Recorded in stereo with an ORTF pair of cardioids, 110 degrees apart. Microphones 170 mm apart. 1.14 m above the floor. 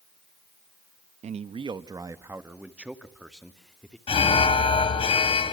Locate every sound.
1.2 s a man speaking: 40° right, 1.0 m; by 4.0 s 5° left, 2.5 m
4.1 s an alarm: 35° left, 2.5 m